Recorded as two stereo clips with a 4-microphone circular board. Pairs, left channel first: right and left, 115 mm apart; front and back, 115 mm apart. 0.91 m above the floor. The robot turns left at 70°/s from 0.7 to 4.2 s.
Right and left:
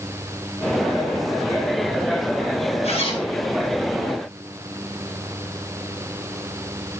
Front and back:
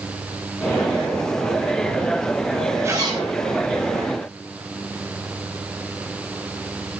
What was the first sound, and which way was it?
A zipper, 115° right.